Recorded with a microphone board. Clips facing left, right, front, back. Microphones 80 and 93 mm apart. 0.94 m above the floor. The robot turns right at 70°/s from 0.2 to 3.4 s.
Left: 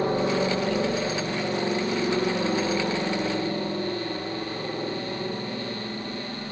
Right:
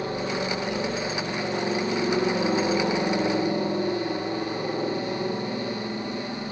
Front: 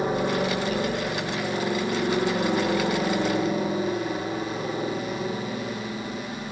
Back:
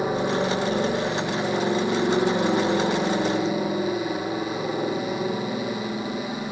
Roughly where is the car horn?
I don't hear a car horn.